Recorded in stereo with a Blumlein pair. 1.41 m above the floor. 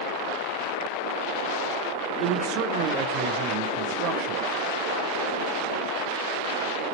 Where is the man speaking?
40° right, 0.7 m.